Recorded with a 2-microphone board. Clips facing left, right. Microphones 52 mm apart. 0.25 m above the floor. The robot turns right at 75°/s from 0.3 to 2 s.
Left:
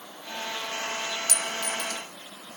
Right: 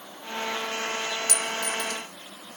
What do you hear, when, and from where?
1.3 s a clink: 35° left (ahead or behind), 1.1 m; by 2.0 s 15° left (ahead or behind), 1.1 m